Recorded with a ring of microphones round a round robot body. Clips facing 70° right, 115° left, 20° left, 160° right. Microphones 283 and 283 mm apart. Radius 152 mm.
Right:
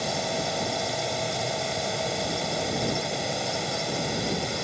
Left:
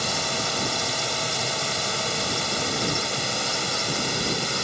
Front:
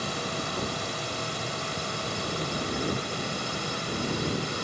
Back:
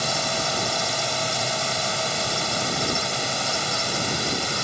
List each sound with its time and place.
0.0 s a drone: straight behind